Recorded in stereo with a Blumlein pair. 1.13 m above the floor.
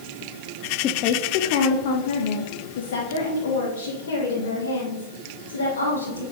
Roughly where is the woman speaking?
Ahead left.